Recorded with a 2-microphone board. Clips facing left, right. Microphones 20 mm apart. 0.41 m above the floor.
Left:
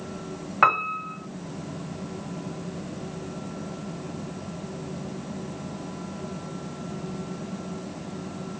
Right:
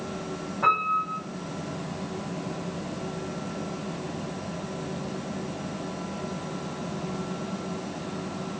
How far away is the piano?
About 1.5 m.